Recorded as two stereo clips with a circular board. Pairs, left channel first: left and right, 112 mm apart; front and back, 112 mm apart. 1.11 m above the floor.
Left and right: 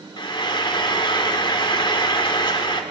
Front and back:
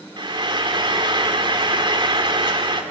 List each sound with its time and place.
0.2 s frying: 135° left, 2 m